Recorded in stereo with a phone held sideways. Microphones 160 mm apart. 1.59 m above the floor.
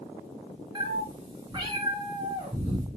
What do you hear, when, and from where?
0.8 s a cat meowing: 30° right (ahead or behind), 1.2 m